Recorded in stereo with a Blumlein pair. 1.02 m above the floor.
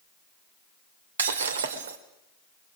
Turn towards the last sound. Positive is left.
turn(degrees=-65)